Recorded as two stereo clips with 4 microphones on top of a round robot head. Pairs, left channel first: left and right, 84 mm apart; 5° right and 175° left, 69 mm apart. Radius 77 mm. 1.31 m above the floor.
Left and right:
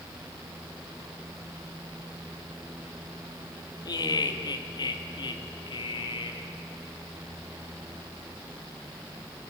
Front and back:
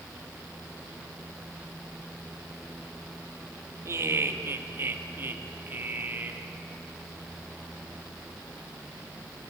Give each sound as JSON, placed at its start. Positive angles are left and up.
{"t": 3.9, "sound": "laughter", "azimuth_deg": 125, "distance_m": 2.5}